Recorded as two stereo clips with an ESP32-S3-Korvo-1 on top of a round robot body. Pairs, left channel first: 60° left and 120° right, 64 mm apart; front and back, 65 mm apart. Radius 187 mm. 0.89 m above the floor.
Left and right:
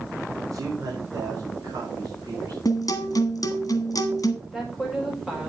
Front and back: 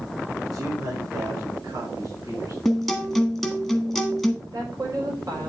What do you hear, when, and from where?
0.5 s a man speaking: 155° right, 3.5 m; by 2.5 s 150° right, 6 m
2.6 s a guitar: 90° left, 1.5 m
4.4 s a woman speaking: 155° left, 5 m